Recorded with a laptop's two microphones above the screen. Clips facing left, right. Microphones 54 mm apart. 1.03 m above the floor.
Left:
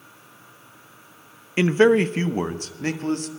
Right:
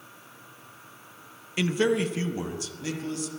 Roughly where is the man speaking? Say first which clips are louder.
Left 8 dB; left.